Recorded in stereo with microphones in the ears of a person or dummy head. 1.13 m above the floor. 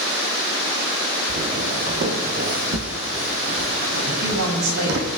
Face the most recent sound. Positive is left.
turn(degrees=-80)